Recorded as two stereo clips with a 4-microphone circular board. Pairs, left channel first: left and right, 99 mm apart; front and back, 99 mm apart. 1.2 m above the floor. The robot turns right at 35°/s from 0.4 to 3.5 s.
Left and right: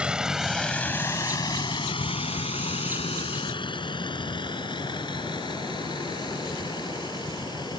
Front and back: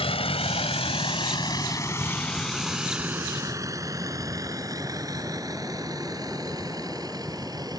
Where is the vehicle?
10° right; by 7.8 s 130° left.